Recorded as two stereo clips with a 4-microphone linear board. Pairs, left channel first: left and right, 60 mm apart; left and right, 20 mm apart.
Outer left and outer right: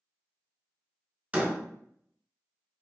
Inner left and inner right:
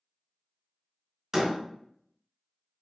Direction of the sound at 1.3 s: 20° right (ahead or behind).